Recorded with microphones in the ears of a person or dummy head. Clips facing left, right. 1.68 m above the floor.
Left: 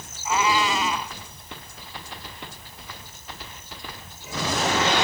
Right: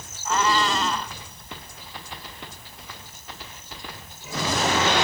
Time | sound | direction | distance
0.2 | a cat meowing | 10° left (ahead or behind) | ?